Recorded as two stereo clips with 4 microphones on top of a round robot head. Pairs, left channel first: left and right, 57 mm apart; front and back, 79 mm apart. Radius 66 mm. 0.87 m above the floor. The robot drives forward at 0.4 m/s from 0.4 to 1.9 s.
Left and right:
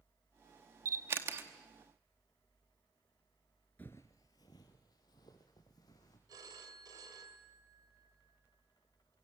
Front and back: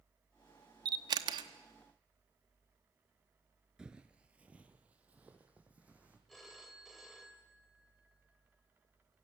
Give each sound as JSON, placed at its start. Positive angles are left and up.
{"t": 0.8, "sound": "a camera shutter", "azimuth_deg": -140, "distance_m": 1.0}
{"t": 3.8, "sound": "footsteps", "azimuth_deg": 115, "distance_m": 0.8}
{"t": 6.3, "sound": "a phone ringing", "azimuth_deg": -90, "distance_m": 2.0}